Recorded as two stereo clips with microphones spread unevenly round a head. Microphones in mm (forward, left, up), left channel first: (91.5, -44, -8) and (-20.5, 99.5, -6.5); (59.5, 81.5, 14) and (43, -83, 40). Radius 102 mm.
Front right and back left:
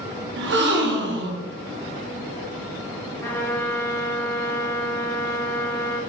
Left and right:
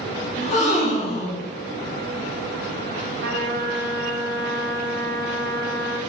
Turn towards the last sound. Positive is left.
turn(degrees=-130)